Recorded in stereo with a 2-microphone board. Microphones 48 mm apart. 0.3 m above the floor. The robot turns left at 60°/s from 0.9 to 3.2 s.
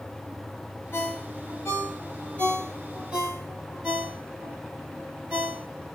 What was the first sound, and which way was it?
A ringtone, 70° left (ahead or behind).